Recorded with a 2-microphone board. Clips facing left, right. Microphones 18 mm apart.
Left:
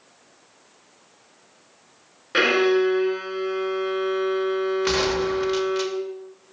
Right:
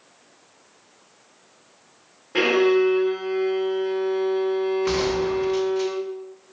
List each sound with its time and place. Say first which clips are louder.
2.3 s a violin: even; 70° left (ahead or behind), 3.5 m
4.8 s a gunshot: even; 50° left (ahead or behind), 1.0 m